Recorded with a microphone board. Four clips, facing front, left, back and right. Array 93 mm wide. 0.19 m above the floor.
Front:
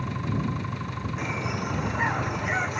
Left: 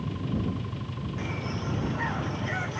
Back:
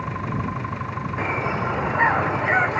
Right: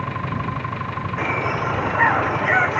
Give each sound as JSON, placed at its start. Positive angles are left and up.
{"t": 0.0, "sound": "an engine running", "azimuth_deg": -120}
{"t": 1.2, "sound": "a bird", "azimuth_deg": -125}